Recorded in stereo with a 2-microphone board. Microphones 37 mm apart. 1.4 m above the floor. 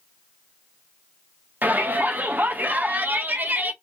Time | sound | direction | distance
1.6 | a shout | 55° right (ahead or behind) | 0.7 m